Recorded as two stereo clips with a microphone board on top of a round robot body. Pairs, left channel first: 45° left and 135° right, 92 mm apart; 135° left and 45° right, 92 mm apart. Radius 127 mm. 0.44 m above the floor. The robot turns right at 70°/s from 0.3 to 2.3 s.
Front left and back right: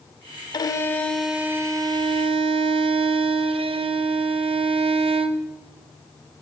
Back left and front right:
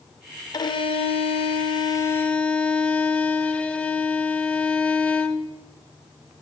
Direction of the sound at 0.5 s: 90° left.